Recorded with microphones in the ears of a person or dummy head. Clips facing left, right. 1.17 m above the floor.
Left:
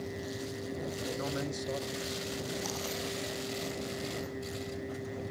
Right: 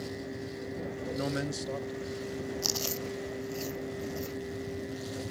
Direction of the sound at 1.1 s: 35° right (ahead or behind).